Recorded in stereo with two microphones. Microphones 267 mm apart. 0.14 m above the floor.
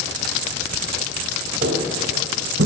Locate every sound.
1.6 s footsteps: 40° right (ahead or behind), 1.6 m; by 2.7 s 55° right (ahead or behind), 0.9 m